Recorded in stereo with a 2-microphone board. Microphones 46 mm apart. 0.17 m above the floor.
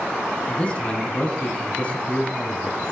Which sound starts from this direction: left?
A man speaking, at 0.5 s.